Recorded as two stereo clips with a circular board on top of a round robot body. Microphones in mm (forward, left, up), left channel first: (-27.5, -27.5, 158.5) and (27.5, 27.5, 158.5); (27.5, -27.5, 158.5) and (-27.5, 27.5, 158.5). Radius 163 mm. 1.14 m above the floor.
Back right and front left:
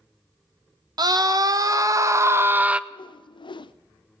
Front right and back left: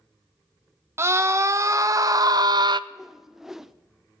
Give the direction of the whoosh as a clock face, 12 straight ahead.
5 o'clock.